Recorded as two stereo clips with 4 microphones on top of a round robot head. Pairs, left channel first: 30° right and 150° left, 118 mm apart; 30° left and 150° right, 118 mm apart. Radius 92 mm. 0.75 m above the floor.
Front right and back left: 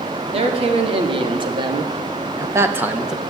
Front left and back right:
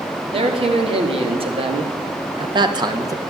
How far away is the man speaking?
About 2.5 m.